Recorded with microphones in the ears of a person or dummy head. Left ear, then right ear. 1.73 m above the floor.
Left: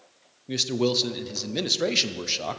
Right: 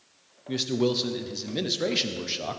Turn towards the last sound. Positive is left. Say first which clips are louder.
# left 2 dB
turn(degrees=15)  # may be behind; listen again after turning